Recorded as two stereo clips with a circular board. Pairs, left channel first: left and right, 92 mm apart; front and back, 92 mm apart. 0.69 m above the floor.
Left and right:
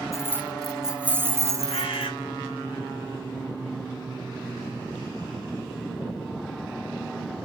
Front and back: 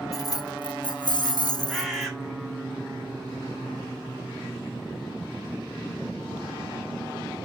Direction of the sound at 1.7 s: 90° left.